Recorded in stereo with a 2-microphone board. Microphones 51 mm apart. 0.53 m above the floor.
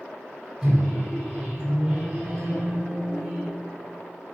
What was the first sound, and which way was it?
A microwave, 10° right (ahead or behind).